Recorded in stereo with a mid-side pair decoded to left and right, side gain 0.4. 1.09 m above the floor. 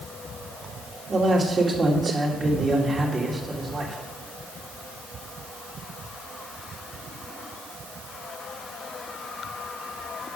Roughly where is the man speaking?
Ahead right.